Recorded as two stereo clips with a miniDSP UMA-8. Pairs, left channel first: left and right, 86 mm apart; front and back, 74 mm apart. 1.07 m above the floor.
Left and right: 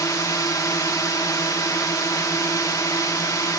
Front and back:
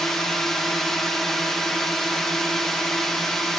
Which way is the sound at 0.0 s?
85° left.